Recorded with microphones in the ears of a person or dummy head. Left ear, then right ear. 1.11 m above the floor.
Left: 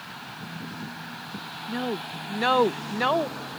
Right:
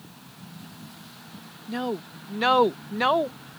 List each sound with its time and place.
1.7 s a woman speaking: 10° right (ahead or behind)